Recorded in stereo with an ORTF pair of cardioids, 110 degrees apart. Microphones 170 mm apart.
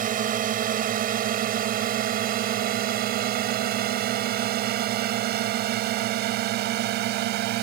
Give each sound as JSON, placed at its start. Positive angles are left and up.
{"t": 0.0, "sound": "a drone", "azimuth_deg": -55}